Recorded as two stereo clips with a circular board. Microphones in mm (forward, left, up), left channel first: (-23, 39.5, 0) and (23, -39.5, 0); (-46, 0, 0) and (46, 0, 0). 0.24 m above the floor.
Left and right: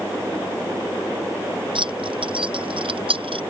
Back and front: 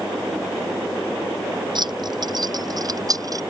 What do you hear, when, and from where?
1.8 s keys jangling: 35° right; by 3.4 s 50° right